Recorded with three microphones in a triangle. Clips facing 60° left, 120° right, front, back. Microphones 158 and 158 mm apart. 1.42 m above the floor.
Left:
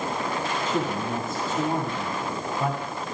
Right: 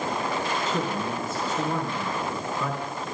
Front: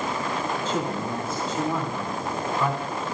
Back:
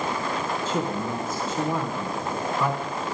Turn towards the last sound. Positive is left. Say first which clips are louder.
# left 1 dB, even
turn(degrees=85)